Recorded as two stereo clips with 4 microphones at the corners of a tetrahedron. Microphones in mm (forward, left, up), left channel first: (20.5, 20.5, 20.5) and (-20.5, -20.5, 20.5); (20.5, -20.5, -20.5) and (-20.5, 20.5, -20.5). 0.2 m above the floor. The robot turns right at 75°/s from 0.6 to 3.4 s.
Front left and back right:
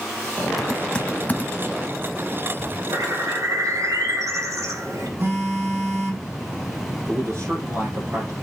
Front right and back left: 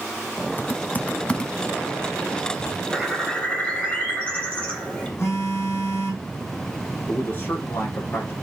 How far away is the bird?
About 4 m.